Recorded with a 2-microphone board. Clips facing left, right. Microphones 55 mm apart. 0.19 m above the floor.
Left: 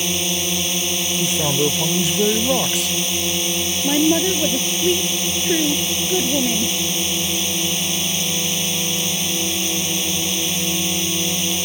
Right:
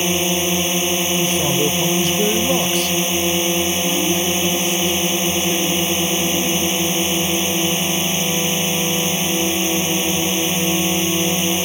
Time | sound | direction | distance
0.0 | a drone | 25° right (ahead or behind) | ?
1.2 | a man speaking | 5° left (ahead or behind) | ?
3.8 | a woman speaking | 40° left (ahead or behind) | ?